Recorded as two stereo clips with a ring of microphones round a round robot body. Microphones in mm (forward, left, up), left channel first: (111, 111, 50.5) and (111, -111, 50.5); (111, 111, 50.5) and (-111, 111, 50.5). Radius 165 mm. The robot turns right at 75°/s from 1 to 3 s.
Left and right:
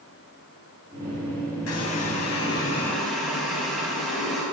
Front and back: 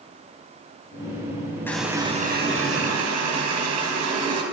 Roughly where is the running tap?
Left.